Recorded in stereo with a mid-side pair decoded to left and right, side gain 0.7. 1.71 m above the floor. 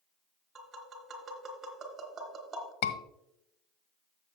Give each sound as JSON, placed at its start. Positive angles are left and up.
{"t": 0.6, "sound": "tapping", "azimuth_deg": -30, "distance_m": 2.5}
{"t": 2.8, "sound": "a scream", "azimuth_deg": 65, "distance_m": 1.5}